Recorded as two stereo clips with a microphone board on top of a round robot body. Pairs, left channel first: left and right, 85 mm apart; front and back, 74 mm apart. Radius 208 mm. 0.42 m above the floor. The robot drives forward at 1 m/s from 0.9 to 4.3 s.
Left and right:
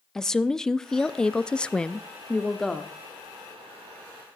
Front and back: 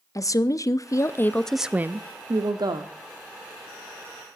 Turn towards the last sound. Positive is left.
turn(degrees=180)